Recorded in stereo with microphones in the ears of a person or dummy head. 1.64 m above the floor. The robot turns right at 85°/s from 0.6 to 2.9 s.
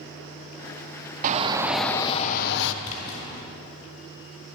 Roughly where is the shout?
Ahead right.